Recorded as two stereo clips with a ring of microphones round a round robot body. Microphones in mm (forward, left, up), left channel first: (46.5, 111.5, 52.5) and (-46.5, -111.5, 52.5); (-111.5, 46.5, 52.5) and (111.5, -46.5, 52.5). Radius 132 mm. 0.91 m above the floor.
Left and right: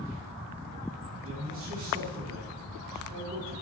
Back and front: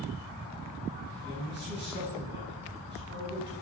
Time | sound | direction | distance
1.2 | a man speaking | 70° right | 7.5 m